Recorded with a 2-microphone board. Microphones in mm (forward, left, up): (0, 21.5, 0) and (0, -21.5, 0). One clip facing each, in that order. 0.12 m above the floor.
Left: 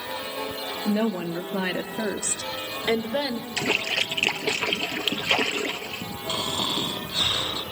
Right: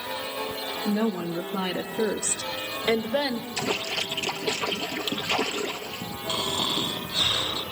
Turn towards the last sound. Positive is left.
turn(degrees=20)  # may be behind; listen again after turning